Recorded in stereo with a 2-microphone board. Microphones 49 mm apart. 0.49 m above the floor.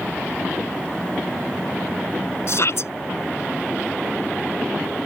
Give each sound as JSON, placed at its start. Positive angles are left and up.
{"t": 2.5, "sound": "a shout", "side_deg": 60}